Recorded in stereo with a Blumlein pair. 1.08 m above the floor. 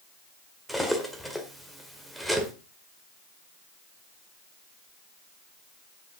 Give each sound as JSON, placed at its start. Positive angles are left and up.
{"t": 0.7, "sound": "cutlery clinking", "azimuth_deg": 0, "distance_m": 1.9}